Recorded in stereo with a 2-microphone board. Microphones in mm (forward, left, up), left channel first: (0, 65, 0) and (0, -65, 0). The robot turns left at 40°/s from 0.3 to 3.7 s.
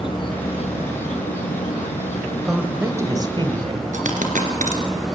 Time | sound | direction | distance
0.0 | an insect | 140° left | 1.5 m
2.5 | a woman speaking | 5° right | 2 m
3.9 | a dropped coin | 80° right | 2.5 m